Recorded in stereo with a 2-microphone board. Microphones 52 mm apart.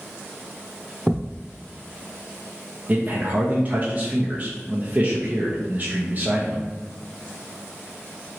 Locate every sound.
1.1 s a thud: centre (ahead or behind), 0.5 m
2.9 s a man speaking: 30° right (ahead or behind), 0.7 m